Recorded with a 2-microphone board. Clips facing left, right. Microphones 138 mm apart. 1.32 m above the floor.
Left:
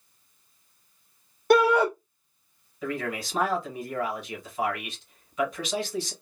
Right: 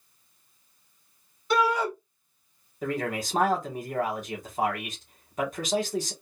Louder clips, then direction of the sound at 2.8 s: Right 2 dB; 45° right (ahead or behind).